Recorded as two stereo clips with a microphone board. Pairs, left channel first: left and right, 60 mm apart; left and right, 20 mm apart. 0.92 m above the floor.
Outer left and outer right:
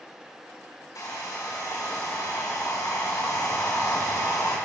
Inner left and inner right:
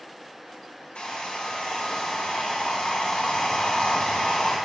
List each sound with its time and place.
0.9 s a hair dryer: 85° left, 2 m